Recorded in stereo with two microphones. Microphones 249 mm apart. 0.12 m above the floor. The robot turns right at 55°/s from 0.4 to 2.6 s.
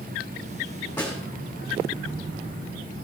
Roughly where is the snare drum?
Centre.